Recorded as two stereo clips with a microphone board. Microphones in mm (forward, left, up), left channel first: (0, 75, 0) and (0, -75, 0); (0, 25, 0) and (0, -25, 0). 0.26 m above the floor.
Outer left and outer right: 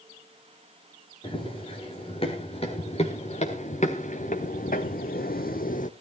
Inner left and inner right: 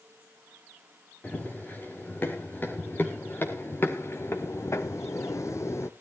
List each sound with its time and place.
1.2 s running footsteps: 35° left (ahead or behind), 4 m; by 5.9 s 60° left (ahead or behind), 1.0 m